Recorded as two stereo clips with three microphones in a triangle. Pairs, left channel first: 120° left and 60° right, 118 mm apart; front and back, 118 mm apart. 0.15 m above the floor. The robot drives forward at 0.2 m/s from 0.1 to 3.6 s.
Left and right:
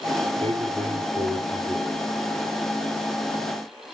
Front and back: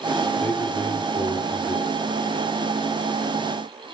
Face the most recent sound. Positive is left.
turn(degrees=-75)